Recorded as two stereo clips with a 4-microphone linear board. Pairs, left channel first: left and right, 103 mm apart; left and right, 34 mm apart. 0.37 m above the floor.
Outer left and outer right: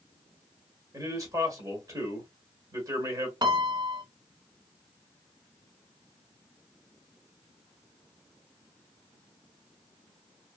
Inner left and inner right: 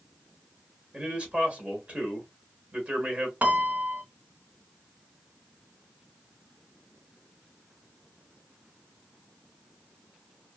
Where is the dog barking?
I don't hear a dog barking.